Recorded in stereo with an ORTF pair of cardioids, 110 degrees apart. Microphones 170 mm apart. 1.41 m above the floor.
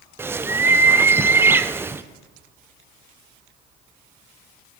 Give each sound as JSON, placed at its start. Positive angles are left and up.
{"t": 0.2, "sound": "a bird", "azimuth_deg": -15, "distance_m": 0.6}